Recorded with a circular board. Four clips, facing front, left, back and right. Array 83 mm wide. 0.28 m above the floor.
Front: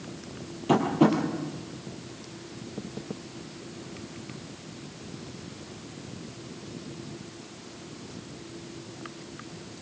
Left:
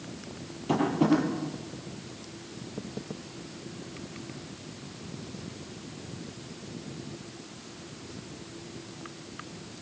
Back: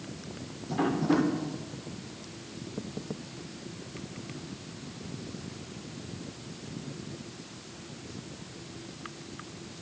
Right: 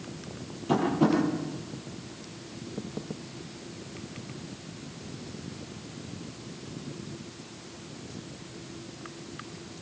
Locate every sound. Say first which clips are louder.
0.7 s tapping: even, front 5 dB; 10° left, 9 m